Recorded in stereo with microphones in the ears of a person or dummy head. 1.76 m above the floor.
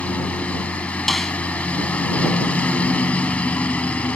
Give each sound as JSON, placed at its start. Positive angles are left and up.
{"t": 0.0, "sound": "a lawn mower", "side_deg": 10}
{"t": 1.1, "sound": "a snare drum", "side_deg": 0}